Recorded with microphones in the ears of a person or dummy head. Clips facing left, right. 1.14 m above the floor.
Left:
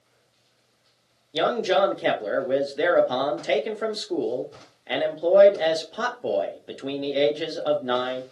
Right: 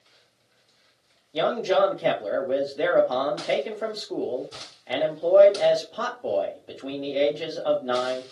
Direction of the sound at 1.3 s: 15° left (ahead or behind).